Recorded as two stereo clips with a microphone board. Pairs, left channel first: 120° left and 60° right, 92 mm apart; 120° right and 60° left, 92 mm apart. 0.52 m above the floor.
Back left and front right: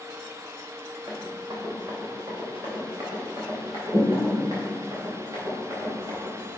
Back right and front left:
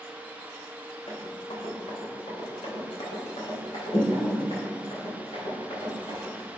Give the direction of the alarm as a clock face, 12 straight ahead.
I don't hear an alarm.